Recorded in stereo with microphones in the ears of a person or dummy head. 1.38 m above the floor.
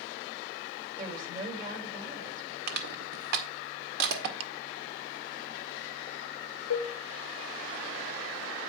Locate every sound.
1.0 s a woman speaking: 50° right (ahead or behind), 5.5 m
2.7 s crushing: 60° right (ahead or behind), 1.7 m
4.4 s ticking: 30° right (ahead or behind), 0.6 m
6.7 s dishes clattering: 65° left (ahead or behind), 0.7 m